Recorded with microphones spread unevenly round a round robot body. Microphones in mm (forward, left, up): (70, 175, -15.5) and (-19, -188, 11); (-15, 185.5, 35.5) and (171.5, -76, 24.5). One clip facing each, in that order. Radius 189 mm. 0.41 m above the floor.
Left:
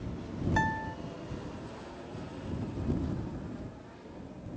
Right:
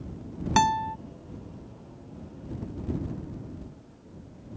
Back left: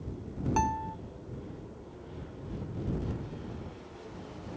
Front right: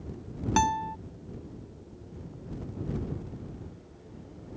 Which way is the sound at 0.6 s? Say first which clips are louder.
Right 5 dB, front right 3 dB; 115° right.